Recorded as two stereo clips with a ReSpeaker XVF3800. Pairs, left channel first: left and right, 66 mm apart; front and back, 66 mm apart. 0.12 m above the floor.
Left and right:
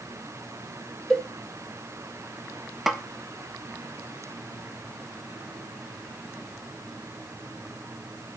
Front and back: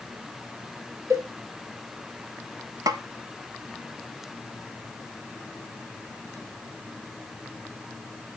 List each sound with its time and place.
1.1 s a cowbell: 170° left, 1.4 m
2.9 s a snare drum: 175° right, 0.7 m